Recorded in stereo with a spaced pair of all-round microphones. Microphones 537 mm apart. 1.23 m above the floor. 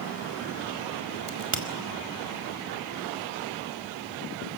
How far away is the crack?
About 2 m.